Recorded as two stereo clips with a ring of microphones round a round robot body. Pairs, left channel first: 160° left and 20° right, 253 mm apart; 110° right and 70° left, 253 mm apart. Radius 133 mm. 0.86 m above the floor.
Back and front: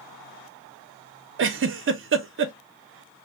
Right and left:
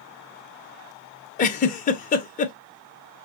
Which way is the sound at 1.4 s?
55° right.